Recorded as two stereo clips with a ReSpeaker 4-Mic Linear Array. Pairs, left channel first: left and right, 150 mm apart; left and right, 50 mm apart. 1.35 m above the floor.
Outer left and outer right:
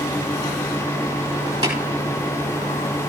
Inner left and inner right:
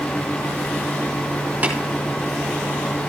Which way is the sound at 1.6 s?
30° right (ahead or behind).